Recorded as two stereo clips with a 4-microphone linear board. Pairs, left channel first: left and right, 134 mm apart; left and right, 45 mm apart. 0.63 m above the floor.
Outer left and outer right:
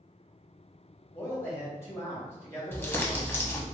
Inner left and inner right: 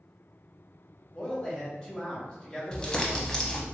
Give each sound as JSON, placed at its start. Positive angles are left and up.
{"t": 1.1, "sound": "a man speaking", "side_deg": 20, "distance_m": 1.3}
{"t": 2.7, "sound": "crumpling", "side_deg": 15, "distance_m": 0.7}